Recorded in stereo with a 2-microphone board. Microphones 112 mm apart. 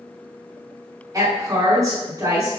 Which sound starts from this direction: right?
A woman speaking, at 1.1 s.